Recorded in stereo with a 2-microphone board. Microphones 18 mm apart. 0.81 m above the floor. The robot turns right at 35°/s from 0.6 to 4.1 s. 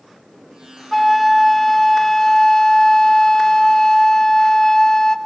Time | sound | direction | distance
0.9 | a flute | 10° left | 1.0 m